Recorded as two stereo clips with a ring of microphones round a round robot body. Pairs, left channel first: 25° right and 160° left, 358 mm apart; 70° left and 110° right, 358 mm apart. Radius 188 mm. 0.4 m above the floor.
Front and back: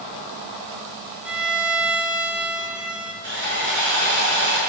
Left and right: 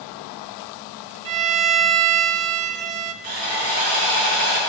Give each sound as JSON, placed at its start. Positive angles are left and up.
{"t": 1.2, "sound": "a violin", "azimuth_deg": -115, "distance_m": 0.9}
{"t": 3.2, "sound": "sawing", "azimuth_deg": -140, "distance_m": 5.5}